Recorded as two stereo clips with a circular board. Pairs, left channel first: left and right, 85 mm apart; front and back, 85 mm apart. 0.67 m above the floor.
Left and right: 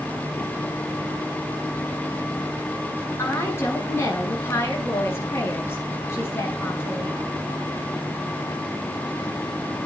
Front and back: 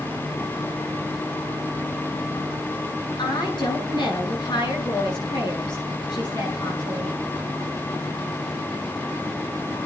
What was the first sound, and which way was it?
A woman speaking, 30° left.